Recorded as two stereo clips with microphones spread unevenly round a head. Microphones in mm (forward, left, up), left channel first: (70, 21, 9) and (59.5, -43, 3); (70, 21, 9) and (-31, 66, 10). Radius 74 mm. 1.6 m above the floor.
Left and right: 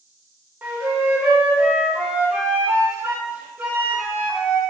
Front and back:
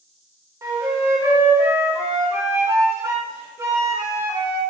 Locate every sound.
0.6 s a flute: 155° right, 0.7 m